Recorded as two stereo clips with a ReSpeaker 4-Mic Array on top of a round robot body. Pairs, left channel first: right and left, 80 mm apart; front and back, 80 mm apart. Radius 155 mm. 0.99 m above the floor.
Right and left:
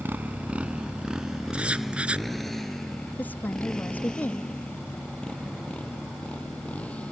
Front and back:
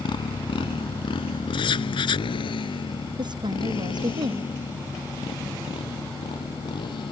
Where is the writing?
15° left.